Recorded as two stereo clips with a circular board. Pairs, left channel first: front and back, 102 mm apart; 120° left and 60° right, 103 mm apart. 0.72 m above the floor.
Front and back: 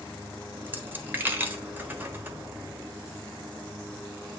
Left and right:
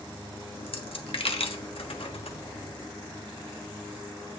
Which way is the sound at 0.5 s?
110° left.